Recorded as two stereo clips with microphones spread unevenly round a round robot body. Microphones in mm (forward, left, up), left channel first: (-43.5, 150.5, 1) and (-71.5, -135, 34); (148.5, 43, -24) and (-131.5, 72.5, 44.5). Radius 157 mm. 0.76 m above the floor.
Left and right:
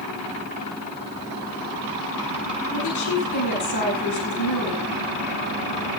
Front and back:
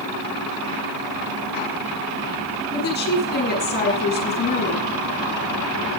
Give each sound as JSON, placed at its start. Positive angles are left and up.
{"t": 2.7, "sound": "a woman speaking", "azimuth_deg": 50, "distance_m": 8.0}